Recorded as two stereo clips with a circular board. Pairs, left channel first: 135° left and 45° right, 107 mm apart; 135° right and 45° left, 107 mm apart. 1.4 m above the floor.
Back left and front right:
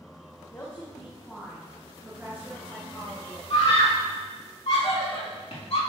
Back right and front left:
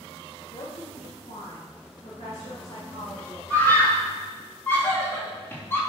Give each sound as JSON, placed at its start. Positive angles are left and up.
{"t": 0.5, "sound": "a woman speaking", "azimuth_deg": -165, "distance_m": 1.3}
{"t": 3.5, "sound": "a scream", "azimuth_deg": 155, "distance_m": 3.0}